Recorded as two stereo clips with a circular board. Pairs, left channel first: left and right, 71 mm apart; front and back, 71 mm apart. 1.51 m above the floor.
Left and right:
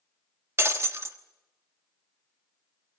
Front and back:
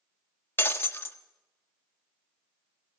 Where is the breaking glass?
50° right, 1.4 m.